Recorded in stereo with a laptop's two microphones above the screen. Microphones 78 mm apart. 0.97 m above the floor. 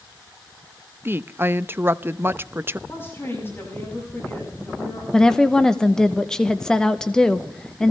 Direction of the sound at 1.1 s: 30° right (ahead or behind).